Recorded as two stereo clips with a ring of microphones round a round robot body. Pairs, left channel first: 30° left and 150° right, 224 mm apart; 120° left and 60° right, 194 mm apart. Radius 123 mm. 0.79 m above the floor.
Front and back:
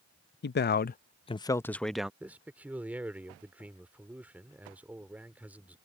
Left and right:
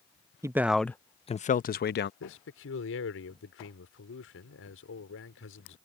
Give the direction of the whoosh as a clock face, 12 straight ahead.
I don't hear a whoosh.